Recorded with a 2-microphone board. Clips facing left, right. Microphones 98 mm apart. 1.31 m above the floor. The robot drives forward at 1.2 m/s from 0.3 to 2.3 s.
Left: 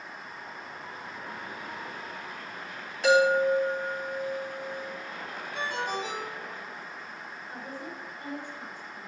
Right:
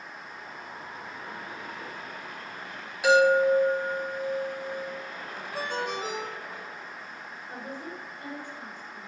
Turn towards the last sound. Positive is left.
turn(degrees=-55)  # may be behind; listen again after turning